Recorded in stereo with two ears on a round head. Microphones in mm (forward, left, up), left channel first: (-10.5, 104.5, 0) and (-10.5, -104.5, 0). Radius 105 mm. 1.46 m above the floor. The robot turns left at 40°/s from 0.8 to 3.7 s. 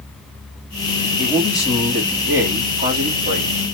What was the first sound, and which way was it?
A man speaking, 35° left.